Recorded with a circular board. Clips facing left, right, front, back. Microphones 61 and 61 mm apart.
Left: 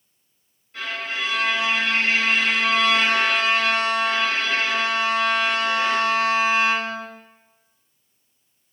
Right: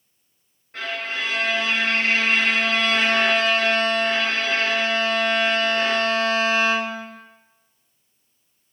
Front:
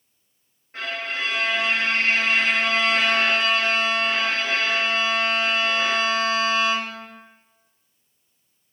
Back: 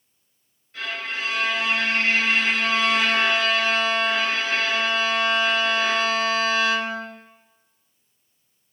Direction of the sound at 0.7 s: 50° right.